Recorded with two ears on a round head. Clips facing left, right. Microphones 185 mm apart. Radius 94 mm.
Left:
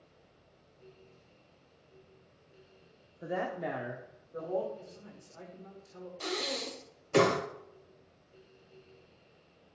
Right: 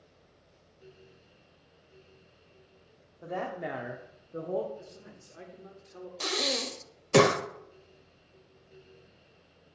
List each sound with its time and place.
3.2 s a woman speaking: 15° left (ahead or behind), 0.7 m; by 4.7 s 40° right (ahead or behind), 0.9 m
4.8 s a man speaking: 25° right (ahead or behind), 1.2 m
6.2 s breathing: 65° right (ahead or behind), 0.7 m